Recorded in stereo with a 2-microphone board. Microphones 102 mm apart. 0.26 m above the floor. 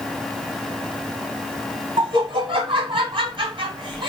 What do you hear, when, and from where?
2.0 s laughter: 55° right (ahead or behind), 1.8 m